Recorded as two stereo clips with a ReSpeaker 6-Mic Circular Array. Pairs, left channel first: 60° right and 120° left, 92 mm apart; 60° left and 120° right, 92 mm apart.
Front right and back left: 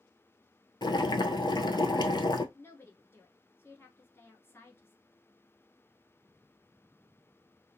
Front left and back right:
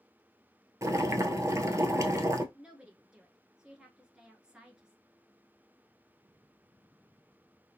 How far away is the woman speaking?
About 1.1 m.